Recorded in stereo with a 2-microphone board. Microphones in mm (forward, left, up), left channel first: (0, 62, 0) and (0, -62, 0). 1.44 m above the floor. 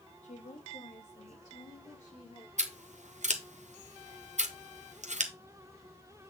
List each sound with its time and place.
0.2 s a woman speaking: 70° left (ahead or behind), 2.0 m; by 2.5 s 85° left, 4.5 m
2.6 s scissors: 75° right (ahead or behind), 1.0 m